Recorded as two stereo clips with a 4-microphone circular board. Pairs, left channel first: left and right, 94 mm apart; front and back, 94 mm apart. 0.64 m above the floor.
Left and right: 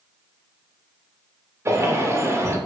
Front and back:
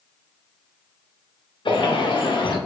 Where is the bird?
30° right, 0.6 m.